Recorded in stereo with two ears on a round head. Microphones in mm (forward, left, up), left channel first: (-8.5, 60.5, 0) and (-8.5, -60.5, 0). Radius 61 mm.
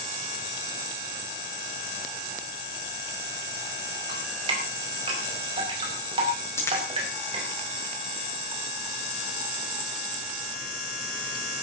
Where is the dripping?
40° right (ahead or behind), 5.5 m.